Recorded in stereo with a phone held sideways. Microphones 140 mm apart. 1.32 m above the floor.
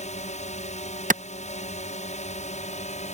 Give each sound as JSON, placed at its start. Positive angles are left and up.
{"t": 0.0, "sound": "a drone", "side_deg": 55}
{"t": 1.1, "sound": "a clap", "side_deg": -70}